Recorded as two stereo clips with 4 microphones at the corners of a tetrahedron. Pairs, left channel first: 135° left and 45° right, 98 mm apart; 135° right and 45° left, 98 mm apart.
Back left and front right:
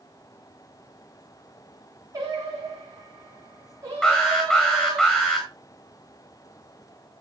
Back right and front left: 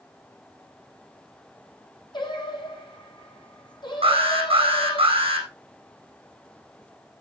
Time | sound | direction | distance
2.1 | singing | 100° right | 6.5 m
4.0 | an alarm | 55° left | 4.5 m